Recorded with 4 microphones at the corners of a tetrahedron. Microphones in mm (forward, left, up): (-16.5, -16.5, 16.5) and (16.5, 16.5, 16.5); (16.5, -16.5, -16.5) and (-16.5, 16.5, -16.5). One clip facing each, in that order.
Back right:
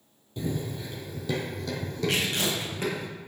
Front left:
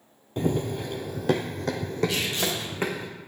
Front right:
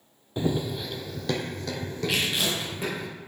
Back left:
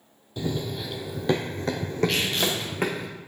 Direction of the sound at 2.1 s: 125° right.